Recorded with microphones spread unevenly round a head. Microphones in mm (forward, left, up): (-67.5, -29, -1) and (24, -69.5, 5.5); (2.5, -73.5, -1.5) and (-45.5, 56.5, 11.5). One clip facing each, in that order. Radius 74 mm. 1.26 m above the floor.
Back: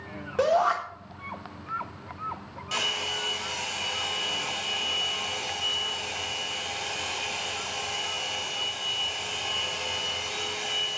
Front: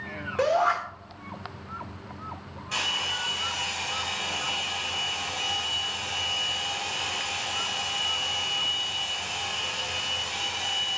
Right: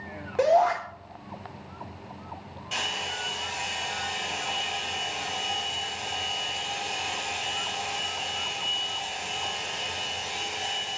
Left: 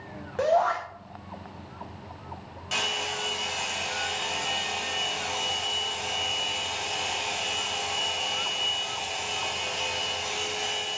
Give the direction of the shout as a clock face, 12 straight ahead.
5 o'clock.